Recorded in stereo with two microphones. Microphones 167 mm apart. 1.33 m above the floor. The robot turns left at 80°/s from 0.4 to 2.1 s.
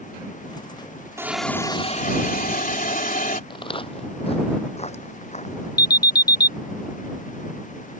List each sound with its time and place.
1.2 s a hiss: 160° right; by 3.4 s 125° left
3.5 s footsteps: 30° left (ahead or behind); by 5.7 s 45° left (ahead or behind)
5.8 s an alarm: 70° left (ahead or behind)